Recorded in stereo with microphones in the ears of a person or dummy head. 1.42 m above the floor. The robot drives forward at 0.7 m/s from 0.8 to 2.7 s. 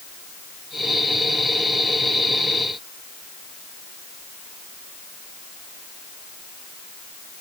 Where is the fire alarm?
No fire alarm in this recording.